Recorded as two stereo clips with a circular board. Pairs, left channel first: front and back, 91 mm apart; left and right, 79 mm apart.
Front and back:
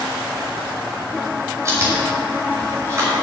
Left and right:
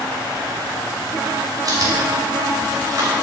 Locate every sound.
1.6 s chewing: 125° right, 3 m